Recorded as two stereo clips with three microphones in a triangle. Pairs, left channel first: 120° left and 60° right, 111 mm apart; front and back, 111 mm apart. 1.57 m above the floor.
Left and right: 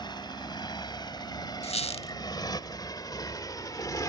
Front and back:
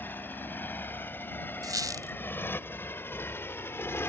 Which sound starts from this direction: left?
A motorcycle, at 0.0 s.